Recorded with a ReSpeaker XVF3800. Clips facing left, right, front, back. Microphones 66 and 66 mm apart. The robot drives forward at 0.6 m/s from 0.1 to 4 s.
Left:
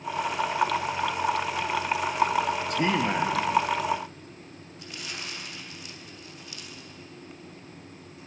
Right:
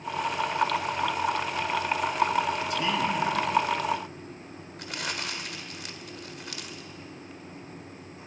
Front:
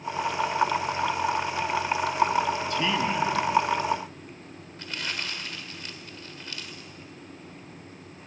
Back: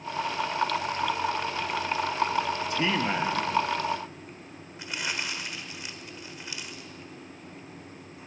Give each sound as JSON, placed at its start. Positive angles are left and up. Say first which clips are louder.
{"t": 2.7, "sound": "a man speaking", "louder": "left 3 dB, front 1 dB", "azimuth_deg": 115, "distance_m": 1.2}
{"t": 4.8, "sound": "crumpling", "louder": "right 5 dB, back 1 dB", "azimuth_deg": -105, "distance_m": 1.8}